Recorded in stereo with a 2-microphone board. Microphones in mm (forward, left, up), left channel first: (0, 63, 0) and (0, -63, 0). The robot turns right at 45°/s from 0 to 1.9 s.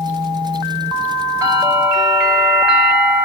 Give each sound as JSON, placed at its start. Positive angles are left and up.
{"t": 1.4, "sound": "a bell", "side_deg": -25, "distance_m": 5.0}